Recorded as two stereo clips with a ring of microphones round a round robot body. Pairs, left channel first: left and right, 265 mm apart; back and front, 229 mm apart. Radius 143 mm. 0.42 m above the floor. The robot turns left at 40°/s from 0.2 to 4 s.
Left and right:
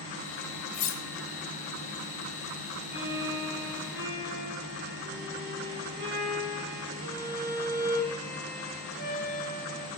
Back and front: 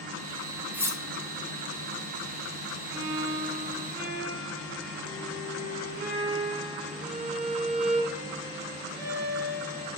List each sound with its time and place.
0.7 s cutlery clinking: 85° left, 1.1 m; by 1.0 s 70° left, 1.1 m
2.9 s a violin: 35° right, 4 m; by 9.9 s 75° right, 4 m